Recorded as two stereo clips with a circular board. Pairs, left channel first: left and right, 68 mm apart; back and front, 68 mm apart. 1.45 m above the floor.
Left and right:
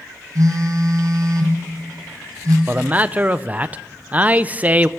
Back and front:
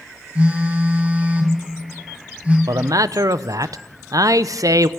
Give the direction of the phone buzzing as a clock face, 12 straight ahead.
2 o'clock.